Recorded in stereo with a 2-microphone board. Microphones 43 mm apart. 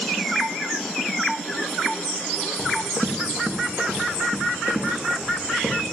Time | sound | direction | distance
2.6 | running footsteps | 45° right (ahead or behind) | 2.5 m